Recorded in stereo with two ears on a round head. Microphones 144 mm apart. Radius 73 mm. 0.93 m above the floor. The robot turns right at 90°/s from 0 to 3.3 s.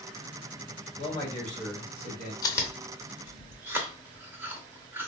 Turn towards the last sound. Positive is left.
turn(degrees=-15)  # may be behind; listen again after turning